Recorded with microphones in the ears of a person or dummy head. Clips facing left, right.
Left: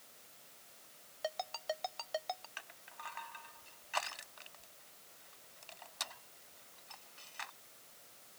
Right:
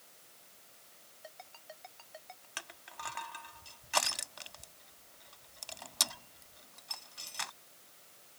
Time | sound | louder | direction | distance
1.2 | a ringtone | left 13 dB | 85° left | ?
2.6 | crushing | right 5 dB | 55° right (ahead or behind) | ?